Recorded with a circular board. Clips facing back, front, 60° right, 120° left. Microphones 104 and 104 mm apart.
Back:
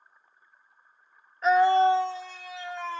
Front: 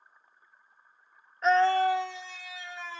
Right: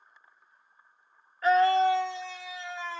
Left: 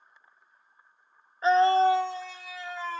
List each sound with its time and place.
1.4 s a scream: 90° left, 0.9 m; by 3.0 s 160° left, 1.8 m